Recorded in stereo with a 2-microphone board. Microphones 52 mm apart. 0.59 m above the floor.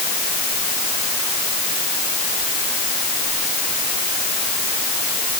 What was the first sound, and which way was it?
Only background noise.